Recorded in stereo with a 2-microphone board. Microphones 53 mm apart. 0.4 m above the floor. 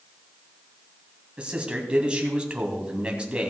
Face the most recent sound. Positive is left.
turn(degrees=-20)  # may be behind; listen again after turning